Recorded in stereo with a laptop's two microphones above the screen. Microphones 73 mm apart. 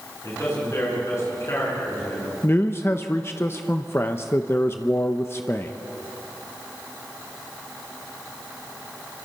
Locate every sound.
0.2 s a man speaking: 45° left (ahead or behind), 9 m
2.4 s a man speaking: 35° left (ahead or behind), 0.8 m